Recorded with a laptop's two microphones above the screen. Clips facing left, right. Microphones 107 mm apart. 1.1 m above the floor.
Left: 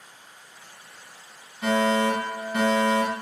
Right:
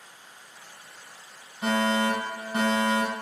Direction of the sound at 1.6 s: 35° right (ahead or behind).